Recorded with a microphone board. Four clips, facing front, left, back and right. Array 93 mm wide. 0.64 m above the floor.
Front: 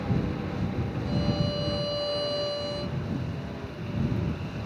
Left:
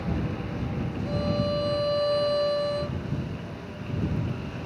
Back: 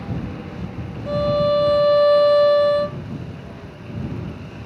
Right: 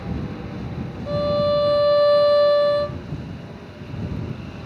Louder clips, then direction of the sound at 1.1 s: Right 9 dB, back 13 dB; 145° right.